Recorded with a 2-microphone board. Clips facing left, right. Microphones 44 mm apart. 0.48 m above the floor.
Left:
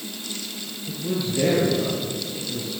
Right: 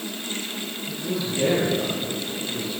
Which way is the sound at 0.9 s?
20° left (ahead or behind).